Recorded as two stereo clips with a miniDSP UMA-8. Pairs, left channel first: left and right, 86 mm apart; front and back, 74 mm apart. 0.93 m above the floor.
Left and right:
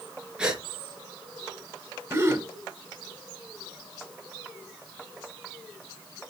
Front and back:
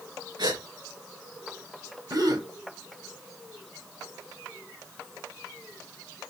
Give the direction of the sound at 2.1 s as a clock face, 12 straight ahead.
5 o'clock.